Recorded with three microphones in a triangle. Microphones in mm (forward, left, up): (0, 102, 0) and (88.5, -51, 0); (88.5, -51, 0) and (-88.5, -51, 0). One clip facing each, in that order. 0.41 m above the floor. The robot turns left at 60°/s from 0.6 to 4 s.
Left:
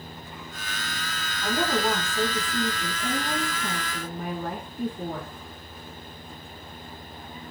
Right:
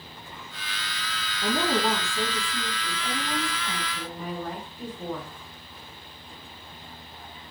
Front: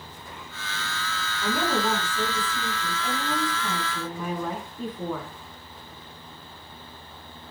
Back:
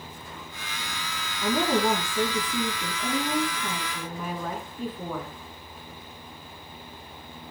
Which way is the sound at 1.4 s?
110° right.